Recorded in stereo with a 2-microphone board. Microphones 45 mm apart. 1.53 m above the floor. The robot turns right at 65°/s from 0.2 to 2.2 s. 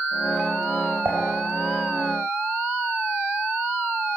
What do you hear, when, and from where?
1.1 s dishes clattering: 60° right (ahead or behind), 4 m; by 1.2 s 55° right (ahead or behind), 4 m